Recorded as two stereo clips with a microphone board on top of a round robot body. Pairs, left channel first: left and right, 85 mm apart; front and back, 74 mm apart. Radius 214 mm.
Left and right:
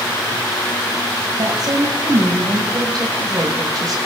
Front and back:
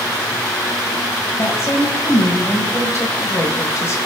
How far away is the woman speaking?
About 1.6 m.